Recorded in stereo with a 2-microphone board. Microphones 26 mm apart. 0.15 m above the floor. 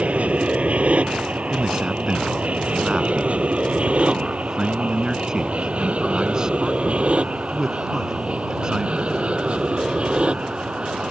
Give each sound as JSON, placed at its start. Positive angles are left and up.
{"t": 0.0, "sound": "an aircraft", "side_deg": -50}
{"t": 1.5, "sound": "a man speaking", "side_deg": -25}